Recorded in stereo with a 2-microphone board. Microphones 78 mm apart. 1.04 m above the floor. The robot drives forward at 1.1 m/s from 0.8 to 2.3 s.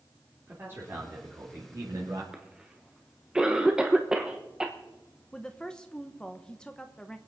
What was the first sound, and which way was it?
A man speaking, 30° right (ahead or behind).